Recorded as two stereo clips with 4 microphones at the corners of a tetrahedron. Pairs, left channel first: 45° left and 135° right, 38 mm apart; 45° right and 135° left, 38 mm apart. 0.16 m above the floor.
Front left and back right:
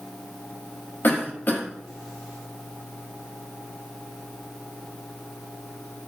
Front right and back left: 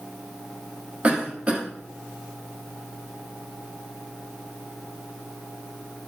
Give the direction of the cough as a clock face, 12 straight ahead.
9 o'clock.